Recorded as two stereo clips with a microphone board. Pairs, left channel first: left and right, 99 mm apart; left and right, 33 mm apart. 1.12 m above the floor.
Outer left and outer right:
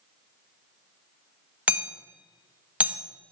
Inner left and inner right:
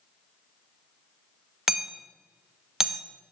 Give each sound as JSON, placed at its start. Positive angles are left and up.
{"t": 1.7, "sound": "hammering", "side_deg": -15, "distance_m": 0.7}